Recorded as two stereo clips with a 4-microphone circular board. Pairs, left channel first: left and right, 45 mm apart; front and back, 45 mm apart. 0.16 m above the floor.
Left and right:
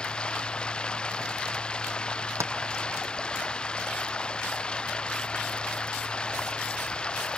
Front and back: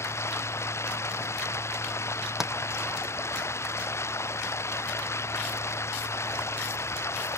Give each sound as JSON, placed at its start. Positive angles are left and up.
{"t": 0.0, "sound": "running water", "azimuth_deg": 20}
{"t": 2.4, "sound": "tapping", "azimuth_deg": -100}